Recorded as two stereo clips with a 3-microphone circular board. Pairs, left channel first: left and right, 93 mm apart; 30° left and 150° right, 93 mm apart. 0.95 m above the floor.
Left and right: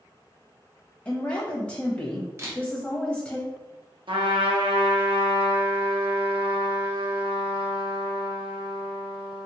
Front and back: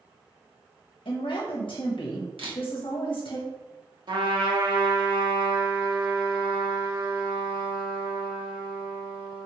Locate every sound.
1.1 s a woman speaking: 20° left, 0.8 m
2.4 s a camera shutter: 150° right, 1.0 m
4.1 s a trumpet: 115° right, 0.9 m